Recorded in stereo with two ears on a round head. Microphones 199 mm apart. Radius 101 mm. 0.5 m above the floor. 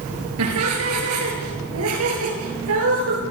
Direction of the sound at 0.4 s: 85° right.